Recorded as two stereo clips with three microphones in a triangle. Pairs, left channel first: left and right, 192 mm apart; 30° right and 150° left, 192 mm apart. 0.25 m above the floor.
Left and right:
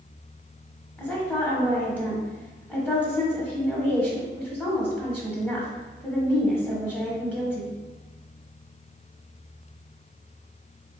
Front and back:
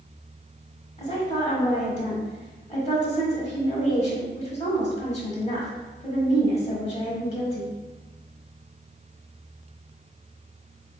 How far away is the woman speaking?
About 1.1 m.